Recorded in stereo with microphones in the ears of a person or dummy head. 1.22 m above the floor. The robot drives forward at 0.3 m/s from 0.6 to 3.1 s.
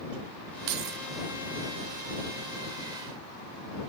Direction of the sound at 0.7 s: 65° right (ahead or behind).